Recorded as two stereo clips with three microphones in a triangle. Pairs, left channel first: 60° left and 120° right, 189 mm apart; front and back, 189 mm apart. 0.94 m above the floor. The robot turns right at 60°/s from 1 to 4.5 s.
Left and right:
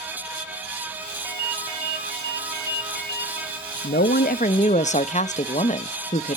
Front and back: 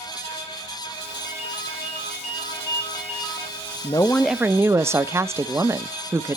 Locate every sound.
1.2 s a ringtone: 20° right, 2.5 m; by 3.5 s 115° left, 2.5 m
3.8 s a woman speaking: 65° left, 0.6 m; by 6.4 s 105° left, 0.6 m